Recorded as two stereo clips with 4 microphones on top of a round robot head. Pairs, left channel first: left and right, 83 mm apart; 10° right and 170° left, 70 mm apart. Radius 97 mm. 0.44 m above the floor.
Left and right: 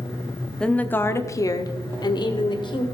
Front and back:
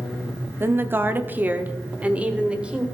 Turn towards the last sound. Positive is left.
turn(degrees=95)